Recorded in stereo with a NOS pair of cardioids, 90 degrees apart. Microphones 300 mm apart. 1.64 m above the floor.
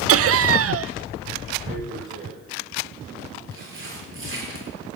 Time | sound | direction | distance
0.1 | laughter | 50° right | 0.6 m
1.6 | tearing paper | 40° right | 8 m